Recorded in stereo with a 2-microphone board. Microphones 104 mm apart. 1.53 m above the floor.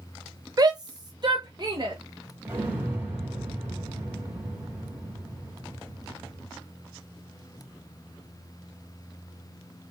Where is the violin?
I don't hear a violin.